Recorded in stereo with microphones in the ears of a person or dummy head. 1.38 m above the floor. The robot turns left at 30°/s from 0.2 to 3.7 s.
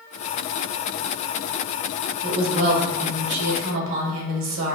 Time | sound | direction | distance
2.2 | a woman speaking | 30° right | 1.2 m